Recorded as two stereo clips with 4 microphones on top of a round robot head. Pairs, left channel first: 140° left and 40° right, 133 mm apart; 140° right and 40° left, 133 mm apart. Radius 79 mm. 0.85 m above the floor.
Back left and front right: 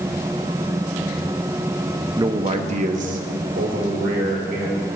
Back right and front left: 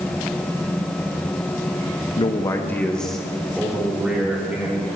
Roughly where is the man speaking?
Right.